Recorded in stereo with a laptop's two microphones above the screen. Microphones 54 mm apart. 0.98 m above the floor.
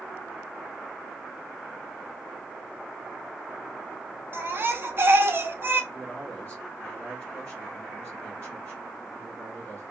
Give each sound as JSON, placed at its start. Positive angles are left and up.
{"t": 4.3, "sound": "a baby crying", "side_deg": -45, "distance_m": 0.6}
{"t": 5.9, "sound": "a man speaking", "side_deg": 40, "distance_m": 1.5}